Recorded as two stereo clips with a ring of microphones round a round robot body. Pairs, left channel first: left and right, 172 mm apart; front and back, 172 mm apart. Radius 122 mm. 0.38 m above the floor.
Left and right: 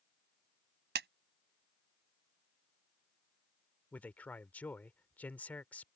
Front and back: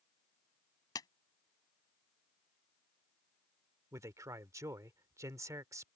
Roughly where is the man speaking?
Behind left.